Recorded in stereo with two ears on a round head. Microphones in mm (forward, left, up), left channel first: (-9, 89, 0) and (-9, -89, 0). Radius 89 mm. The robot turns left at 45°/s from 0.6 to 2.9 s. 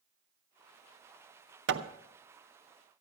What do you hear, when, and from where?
1.7 s hammering: 60° right (ahead or behind), 0.8 m; by 1.9 s 65° right (ahead or behind), 0.8 m